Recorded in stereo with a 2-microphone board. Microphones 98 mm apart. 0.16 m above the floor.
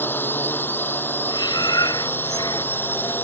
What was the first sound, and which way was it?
A drone, 20° left (ahead or behind).